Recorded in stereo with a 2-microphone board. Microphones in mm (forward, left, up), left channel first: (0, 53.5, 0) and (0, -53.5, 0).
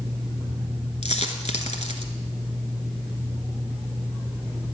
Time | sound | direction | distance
1.0 | a dropped coin | 85° left | 1.2 m